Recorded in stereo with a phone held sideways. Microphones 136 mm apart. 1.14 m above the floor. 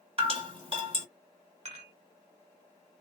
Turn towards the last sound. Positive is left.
turn(degrees=-50)  # may be behind; listen again after turning